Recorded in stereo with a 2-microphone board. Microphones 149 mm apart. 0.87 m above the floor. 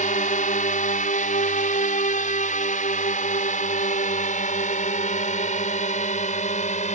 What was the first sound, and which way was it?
A drone, 60° left (ahead or behind).